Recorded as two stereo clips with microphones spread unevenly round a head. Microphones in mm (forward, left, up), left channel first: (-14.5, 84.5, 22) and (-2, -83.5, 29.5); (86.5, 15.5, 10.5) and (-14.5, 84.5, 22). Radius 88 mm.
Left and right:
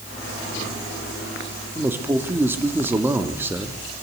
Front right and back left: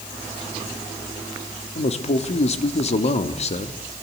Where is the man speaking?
5° right, 2.0 m.